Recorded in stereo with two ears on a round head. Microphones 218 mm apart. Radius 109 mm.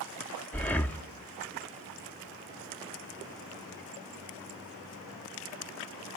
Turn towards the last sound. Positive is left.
turn(degrees=10)  # may be behind; listen again after turning